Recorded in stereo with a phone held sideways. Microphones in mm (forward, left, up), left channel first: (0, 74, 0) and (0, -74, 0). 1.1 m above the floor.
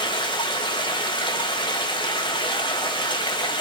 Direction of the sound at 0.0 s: 30° left (ahead or behind).